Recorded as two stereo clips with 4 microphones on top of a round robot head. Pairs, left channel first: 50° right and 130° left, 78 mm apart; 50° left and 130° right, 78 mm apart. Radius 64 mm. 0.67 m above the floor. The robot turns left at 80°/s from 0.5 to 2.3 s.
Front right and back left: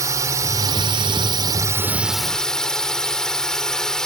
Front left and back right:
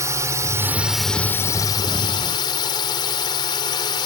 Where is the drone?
Straight behind; by 4.1 s 35° left.